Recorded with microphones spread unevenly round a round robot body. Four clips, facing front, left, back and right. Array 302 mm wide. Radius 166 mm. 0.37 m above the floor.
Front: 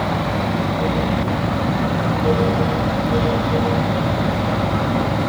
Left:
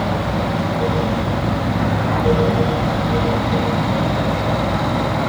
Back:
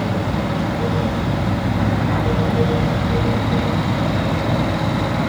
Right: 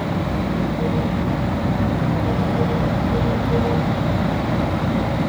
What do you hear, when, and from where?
Only background noise.